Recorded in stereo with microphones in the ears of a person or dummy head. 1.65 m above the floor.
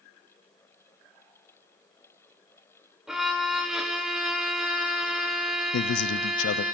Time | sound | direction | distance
3.1 | a violin | 5° right (ahead or behind) | 0.9 m
5.7 | a man speaking | 70° left (ahead or behind) | 0.5 m